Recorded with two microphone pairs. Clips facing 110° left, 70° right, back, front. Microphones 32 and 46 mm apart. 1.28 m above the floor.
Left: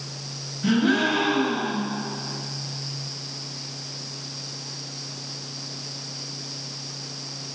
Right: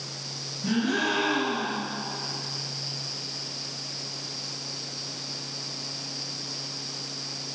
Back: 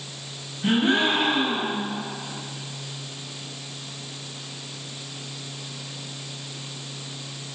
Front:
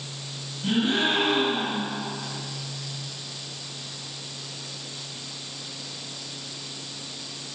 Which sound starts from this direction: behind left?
A gasp, at 0.6 s.